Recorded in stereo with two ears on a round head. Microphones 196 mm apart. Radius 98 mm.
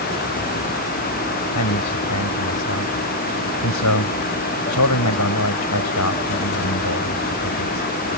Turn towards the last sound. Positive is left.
turn(degrees=85)